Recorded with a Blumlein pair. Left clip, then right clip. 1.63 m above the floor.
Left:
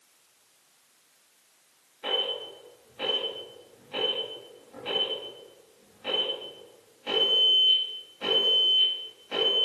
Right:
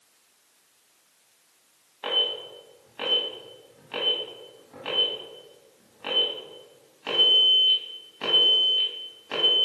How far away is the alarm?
About 1.8 m.